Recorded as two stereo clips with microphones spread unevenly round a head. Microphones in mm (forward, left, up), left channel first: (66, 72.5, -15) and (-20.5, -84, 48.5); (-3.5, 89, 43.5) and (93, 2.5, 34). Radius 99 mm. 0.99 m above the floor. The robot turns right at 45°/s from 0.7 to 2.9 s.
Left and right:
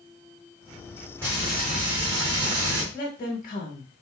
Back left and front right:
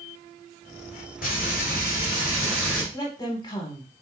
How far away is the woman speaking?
About 1.5 m.